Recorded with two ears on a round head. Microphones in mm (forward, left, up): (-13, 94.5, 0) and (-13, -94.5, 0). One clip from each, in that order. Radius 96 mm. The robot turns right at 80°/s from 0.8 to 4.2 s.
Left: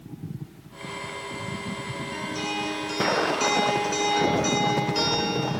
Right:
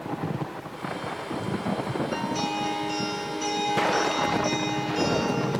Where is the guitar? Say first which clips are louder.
Left 1 dB; 30° right, 2.5 m; by 5.5 s 135° left, 2.5 m.